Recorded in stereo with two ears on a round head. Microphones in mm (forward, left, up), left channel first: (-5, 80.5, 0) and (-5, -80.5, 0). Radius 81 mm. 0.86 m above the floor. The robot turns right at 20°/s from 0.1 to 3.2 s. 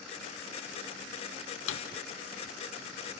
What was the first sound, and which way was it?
A drawer, 75° left (ahead or behind).